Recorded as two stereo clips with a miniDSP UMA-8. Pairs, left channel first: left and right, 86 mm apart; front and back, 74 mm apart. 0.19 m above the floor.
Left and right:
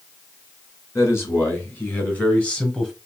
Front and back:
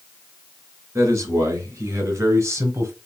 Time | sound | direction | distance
0.9 | a man speaking | 140° left | 2 m